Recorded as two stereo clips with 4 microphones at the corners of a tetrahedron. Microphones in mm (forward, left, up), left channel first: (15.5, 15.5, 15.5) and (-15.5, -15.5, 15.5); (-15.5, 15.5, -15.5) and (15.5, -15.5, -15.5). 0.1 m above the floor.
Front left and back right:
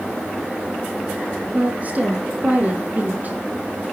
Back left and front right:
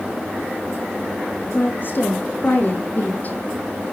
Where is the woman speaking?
170° left, 4 m; by 3.4 s straight behind, 2.5 m.